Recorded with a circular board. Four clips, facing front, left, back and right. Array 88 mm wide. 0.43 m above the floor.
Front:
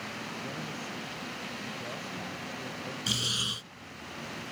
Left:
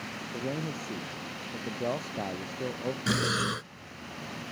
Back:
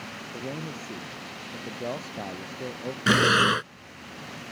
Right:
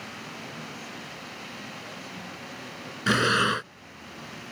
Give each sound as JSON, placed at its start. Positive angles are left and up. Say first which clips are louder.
{"t": 0.3, "sound": "a man speaking", "louder": "left 6 dB, back 3 dB", "azimuth_deg": 120}
{"t": 3.1, "sound": "breathing", "louder": "right 8 dB, back 21 dB", "azimuth_deg": -150}